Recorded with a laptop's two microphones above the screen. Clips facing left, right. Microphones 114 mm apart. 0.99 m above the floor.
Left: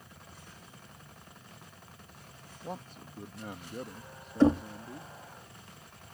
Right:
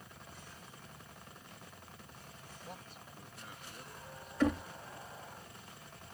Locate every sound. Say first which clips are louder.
2.6 s a man speaking: left 10 dB; 40° left (ahead or behind); by 5.2 s 65° left (ahead or behind)
4.4 s knocking: left 8 dB; 30° left (ahead or behind)